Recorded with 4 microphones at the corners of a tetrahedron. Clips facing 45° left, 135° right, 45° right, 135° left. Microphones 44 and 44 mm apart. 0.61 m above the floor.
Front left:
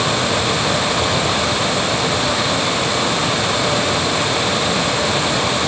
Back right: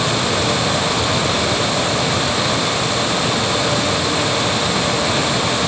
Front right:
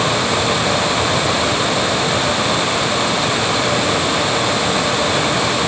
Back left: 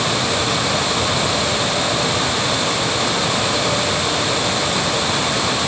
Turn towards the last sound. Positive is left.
No sound to turn to.